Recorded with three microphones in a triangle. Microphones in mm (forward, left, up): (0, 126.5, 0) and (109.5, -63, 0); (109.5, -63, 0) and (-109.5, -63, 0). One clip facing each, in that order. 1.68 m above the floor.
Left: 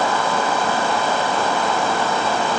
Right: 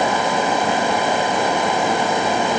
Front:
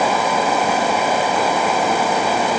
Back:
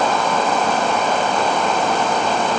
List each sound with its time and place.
Only background noise.